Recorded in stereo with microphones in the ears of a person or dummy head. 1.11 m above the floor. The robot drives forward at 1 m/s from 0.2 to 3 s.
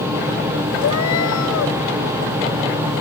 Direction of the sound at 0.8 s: 75° left (ahead or behind).